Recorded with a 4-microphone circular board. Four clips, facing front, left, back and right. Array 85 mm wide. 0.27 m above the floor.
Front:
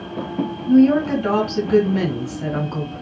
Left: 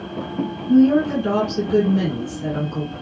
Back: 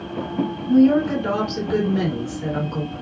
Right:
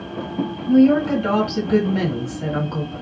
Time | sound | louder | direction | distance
0.7 | a woman speaking | even, front 2 dB | 50° right | 2.5 m